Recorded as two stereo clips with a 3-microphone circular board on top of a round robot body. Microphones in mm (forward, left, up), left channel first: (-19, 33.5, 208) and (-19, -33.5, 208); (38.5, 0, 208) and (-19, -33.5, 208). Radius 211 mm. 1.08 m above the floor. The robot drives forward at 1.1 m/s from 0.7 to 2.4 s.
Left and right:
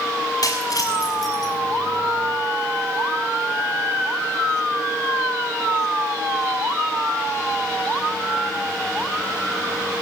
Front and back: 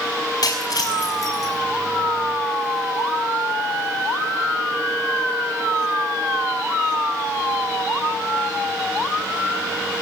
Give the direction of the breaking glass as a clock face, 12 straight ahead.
10 o'clock.